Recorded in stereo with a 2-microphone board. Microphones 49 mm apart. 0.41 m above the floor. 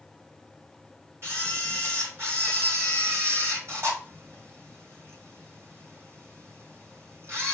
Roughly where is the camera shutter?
Right.